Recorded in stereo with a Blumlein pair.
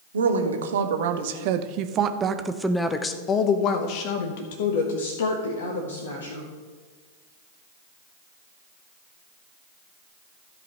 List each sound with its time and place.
0.1 s a woman speaking: 70° right, 1.5 m; by 6.5 s 70° left, 2 m